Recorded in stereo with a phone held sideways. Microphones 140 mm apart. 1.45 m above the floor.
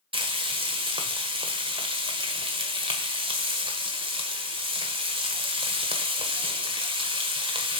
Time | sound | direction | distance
0.1 | frying | 40° right (ahead or behind) | 1.4 m